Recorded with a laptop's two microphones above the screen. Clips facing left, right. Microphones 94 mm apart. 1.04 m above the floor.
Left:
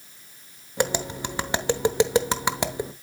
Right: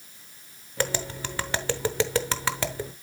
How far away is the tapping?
About 0.8 m.